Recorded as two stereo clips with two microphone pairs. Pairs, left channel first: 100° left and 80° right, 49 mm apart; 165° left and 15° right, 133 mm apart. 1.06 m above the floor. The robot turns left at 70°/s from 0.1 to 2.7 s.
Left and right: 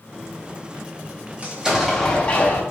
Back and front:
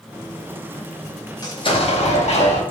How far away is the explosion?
About 0.6 m.